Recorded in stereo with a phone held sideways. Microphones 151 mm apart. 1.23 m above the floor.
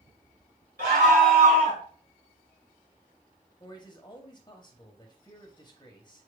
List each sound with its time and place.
0.8 s a scream: 85° right, 3 m; by 1.8 s 55° right (ahead or behind), 2.5 m
3.6 s a man speaking: 30° left (ahead or behind), 0.8 m